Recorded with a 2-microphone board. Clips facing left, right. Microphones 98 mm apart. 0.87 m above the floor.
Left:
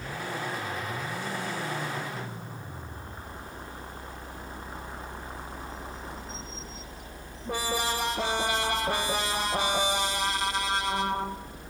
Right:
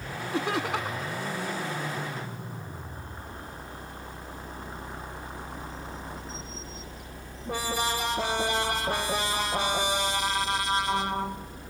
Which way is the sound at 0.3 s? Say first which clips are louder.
Right 8 dB; 70° right (ahead or behind).